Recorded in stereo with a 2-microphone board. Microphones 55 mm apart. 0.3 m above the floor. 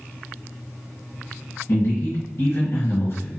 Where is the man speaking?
55° left (ahead or behind), 1.7 m.